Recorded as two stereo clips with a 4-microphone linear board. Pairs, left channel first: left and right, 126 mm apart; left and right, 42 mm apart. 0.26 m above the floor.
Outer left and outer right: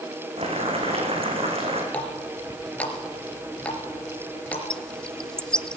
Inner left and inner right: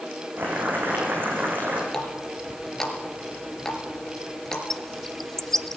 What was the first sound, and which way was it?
Boiling, 50° right (ahead or behind).